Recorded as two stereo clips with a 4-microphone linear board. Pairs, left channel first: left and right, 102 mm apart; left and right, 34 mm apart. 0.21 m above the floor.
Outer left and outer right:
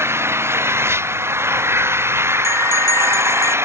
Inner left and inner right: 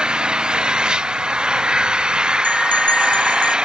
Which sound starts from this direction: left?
A bell, at 2.4 s.